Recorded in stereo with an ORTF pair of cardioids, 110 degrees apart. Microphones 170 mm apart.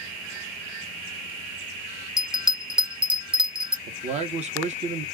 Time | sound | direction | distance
2.2 | a bell | 5° right | 0.6 m
3.9 | a man speaking | 45° right | 0.9 m